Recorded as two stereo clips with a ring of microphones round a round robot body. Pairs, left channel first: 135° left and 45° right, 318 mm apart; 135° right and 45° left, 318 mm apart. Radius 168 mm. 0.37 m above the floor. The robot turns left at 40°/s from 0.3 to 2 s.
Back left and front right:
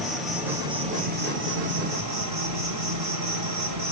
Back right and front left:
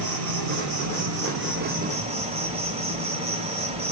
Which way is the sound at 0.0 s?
45° left.